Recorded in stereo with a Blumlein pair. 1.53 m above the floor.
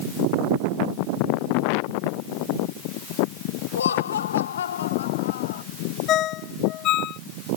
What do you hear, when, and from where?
3.8 s laughter: 70° left; by 5.6 s 60° left
6.1 s a ringtone: 35° left